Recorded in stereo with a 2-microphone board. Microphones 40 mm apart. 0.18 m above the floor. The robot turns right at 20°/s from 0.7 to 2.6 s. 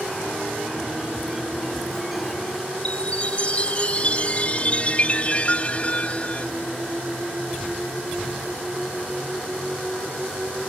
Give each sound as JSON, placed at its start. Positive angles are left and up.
{"t": 2.9, "sound": "a chime", "side_deg": 30}